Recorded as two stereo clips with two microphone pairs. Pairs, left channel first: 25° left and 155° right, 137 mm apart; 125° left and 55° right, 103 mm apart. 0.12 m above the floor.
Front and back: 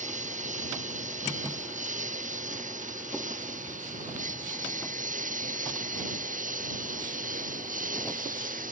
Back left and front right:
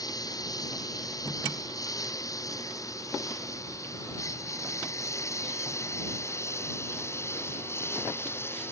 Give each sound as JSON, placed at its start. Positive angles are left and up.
{"t": 0.0, "sound": "a lawn mower", "azimuth_deg": 180}